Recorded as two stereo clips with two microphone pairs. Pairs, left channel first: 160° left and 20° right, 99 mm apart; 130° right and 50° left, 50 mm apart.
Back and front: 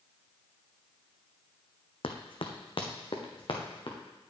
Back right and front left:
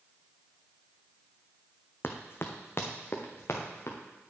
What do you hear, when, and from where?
2.0 s running footsteps: 175° right, 1.1 m; by 4.0 s 165° right, 2.5 m